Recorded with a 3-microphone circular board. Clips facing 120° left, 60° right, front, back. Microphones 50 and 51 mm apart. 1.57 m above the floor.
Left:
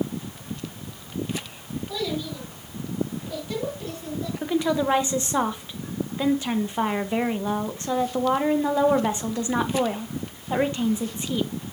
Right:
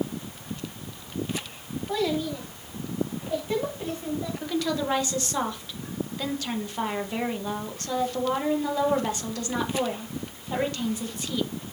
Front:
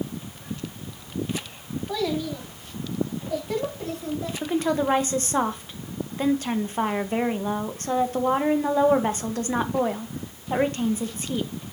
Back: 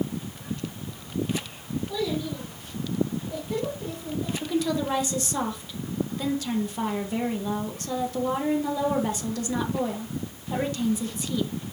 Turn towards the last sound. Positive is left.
turn(degrees=50)